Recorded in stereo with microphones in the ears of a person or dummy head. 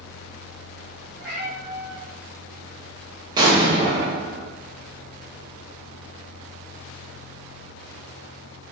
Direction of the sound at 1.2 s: Centre (ahead or behind).